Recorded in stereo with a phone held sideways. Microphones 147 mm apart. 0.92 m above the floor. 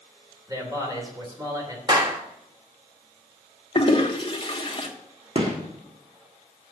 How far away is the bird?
I don't hear a bird.